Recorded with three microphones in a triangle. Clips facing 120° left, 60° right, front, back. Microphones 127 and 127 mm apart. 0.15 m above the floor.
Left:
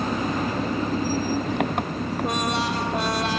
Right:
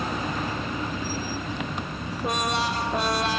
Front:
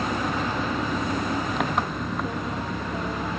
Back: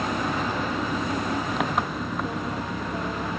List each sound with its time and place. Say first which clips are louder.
0.0 s an engine running: left 4 dB, even; 90° left